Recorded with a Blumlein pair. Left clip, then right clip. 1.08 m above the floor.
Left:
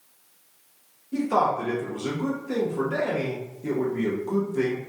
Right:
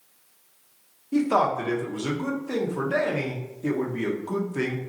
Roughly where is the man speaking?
Right.